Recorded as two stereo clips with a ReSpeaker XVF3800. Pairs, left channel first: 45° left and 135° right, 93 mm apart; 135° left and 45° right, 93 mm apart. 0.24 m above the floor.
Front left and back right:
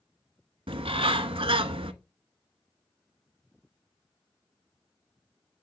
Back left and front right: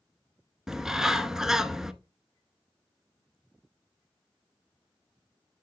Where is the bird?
130° right, 0.8 m.